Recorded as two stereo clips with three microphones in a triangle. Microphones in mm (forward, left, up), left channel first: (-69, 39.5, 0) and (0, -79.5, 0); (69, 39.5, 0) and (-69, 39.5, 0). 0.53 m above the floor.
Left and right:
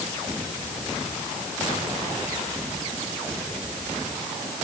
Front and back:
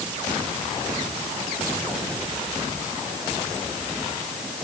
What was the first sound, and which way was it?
Only background noise.